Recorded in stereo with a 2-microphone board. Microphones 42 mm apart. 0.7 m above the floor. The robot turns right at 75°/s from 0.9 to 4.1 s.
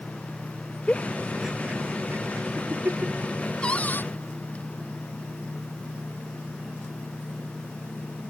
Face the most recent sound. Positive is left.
turn(degrees=60)